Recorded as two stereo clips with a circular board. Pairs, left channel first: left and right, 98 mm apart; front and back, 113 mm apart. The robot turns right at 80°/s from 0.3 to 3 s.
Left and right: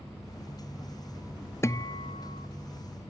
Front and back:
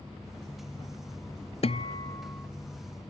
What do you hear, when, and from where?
1.6 s a guitar: 25° left, 0.7 m; by 2.5 s 95° left, 0.7 m